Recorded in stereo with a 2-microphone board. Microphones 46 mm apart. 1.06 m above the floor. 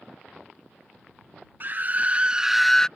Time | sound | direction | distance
1.6 | a scream | 45° right (ahead or behind) | ?